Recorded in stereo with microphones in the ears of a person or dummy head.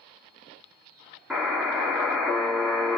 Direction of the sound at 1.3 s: 5° right (ahead or behind).